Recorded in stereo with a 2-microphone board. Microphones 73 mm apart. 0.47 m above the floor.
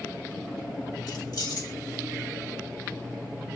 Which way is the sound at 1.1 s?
65° left (ahead or behind).